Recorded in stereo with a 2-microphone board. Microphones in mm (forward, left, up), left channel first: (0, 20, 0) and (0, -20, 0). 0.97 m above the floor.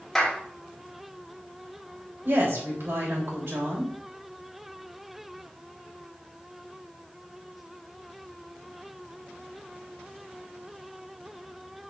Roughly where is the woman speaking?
Right.